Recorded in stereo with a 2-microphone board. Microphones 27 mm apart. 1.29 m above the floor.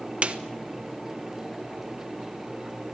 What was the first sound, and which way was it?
A snare drum, 50° right (ahead or behind).